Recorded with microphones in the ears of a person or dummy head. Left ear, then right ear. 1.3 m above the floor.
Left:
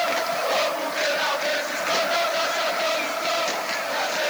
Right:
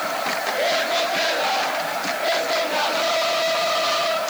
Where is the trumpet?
No trumpet in this recording.